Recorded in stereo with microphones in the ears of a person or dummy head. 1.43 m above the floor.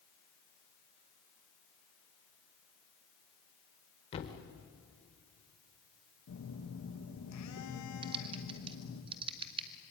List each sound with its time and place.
4.1 s a thud: 25° left (ahead or behind), 1.9 m
6.3 s a phone buzzing: 80° left, 2.5 m
8.0 s typing on a keyboard: 25° right (ahead or behind), 0.7 m